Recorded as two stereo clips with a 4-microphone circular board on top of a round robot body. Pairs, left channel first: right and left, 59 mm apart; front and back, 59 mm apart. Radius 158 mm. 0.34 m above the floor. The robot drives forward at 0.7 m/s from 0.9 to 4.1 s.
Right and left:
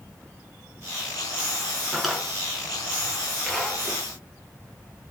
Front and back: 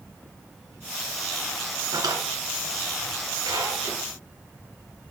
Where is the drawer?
175° left, 2.0 m; by 4.0 s straight behind, 3.5 m.